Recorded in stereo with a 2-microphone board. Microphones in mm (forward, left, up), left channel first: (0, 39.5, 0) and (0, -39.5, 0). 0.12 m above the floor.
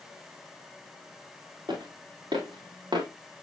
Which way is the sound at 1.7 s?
85° right.